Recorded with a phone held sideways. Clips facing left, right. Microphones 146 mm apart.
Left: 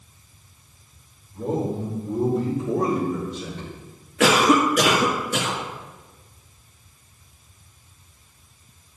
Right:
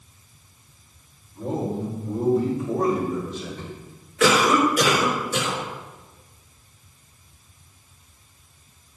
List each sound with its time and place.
1.3 s a man speaking: 65° left (ahead or behind), 3.5 m; by 3.8 s 45° left (ahead or behind), 3 m
4.2 s a cough: 75° left (ahead or behind), 2.0 m